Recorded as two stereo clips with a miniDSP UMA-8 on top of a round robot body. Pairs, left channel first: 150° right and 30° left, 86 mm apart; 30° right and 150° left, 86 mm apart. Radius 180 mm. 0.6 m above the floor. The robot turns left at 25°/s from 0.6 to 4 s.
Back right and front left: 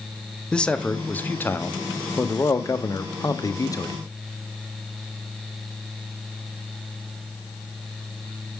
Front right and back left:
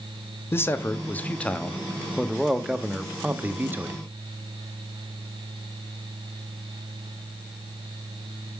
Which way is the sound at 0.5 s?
75° right.